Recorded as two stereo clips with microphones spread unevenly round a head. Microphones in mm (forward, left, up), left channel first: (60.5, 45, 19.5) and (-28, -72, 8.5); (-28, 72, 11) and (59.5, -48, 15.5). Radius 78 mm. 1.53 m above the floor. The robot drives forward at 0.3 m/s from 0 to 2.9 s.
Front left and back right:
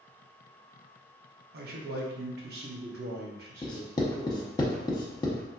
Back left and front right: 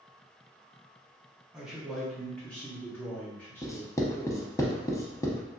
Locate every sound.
1.5 s a man speaking: 135° right, 0.7 m; by 4.6 s 155° right, 1.0 m
3.6 s writing: 70° left, 0.6 m